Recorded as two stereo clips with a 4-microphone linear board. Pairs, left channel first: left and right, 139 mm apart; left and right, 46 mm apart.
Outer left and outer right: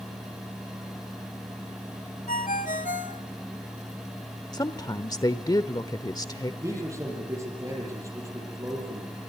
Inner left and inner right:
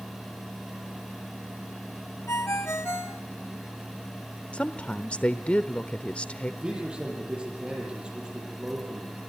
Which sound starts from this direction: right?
A man speaking, at 6.6 s.